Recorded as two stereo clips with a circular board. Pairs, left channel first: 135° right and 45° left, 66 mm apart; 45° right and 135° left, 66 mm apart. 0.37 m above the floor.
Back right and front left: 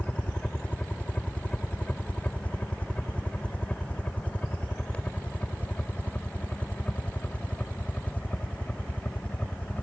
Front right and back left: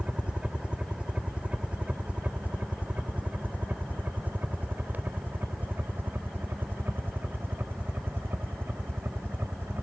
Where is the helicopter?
175° right; by 9.8 s 165° left.